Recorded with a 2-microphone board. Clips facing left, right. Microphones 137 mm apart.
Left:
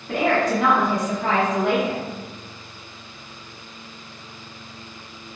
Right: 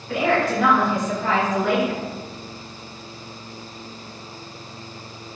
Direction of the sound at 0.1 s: 45° left (ahead or behind).